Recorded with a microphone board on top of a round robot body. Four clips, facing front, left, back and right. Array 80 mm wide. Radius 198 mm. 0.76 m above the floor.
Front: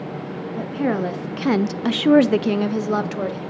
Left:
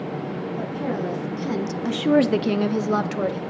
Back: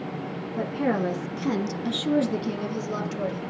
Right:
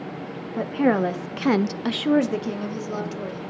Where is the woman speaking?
85° right, 1.5 m; by 3.4 s 55° left, 1.7 m.